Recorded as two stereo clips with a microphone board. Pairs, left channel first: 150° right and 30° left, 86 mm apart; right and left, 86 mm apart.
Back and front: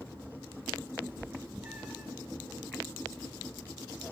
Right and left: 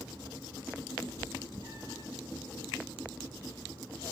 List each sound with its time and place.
1.0 s a cat meowing: 30° right, 1.1 m; by 2.1 s 60° right, 0.9 m